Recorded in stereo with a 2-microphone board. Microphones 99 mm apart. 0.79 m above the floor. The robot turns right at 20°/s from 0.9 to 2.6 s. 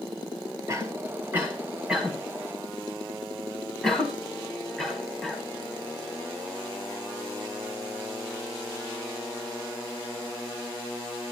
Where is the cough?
30° right (ahead or behind), 6.5 m; by 5.4 s 5° left (ahead or behind), 6.5 m.